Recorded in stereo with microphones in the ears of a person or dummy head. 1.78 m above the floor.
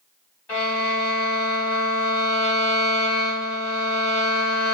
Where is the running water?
No running water in this recording.